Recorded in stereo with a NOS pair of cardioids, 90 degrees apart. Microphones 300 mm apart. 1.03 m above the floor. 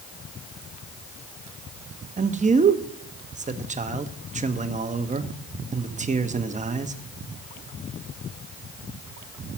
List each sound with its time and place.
2.2 s a man speaking: 25° right, 1.1 m